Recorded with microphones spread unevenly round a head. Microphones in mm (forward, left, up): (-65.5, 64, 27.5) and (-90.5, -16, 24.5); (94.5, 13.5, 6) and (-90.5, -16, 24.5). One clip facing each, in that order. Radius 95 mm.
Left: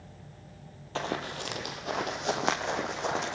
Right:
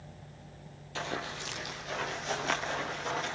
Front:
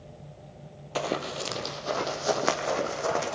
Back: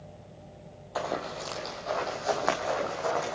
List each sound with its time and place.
0.9 s running footsteps: 50° left, 2 m; by 3.4 s 65° left, 4.5 m